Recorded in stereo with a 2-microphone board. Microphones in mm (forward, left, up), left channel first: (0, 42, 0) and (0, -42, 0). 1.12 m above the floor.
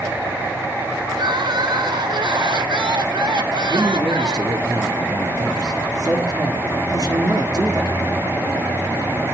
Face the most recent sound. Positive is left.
turn(degrees=-50)  # may be behind; listen again after turning